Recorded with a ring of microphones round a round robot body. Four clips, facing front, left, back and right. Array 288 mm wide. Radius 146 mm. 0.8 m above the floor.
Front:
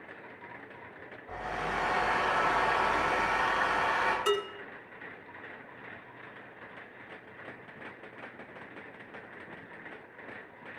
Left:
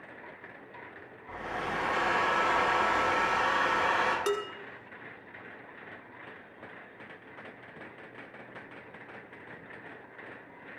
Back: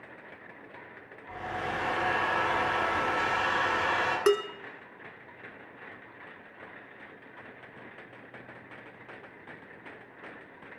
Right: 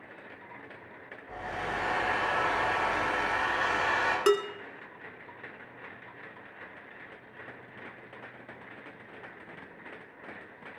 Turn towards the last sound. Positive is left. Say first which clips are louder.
# right 6 dB, back 8 dB
turn(degrees=-150)